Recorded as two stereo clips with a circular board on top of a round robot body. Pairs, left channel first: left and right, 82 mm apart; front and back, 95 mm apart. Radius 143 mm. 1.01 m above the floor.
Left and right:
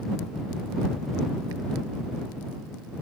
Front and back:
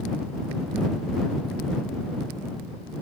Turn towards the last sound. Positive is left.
No sound to turn to.